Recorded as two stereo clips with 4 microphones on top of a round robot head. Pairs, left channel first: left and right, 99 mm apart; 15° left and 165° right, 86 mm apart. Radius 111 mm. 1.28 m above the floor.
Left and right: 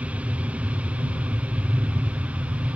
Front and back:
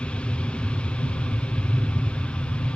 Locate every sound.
0.0 s an aircraft: 40° right